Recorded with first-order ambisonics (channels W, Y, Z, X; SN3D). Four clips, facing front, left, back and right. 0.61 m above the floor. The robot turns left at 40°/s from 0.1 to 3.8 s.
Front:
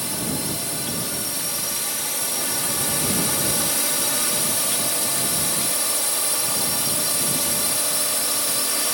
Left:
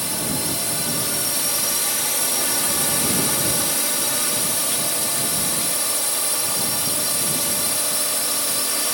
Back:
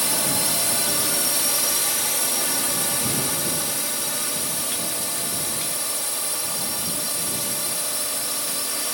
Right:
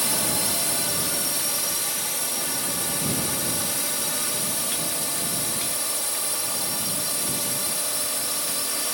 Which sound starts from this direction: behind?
A drone, at 0.0 s.